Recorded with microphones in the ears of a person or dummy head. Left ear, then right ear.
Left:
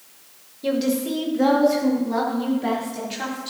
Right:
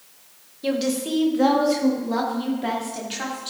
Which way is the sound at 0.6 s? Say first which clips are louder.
Left 1 dB; 10° right (ahead or behind).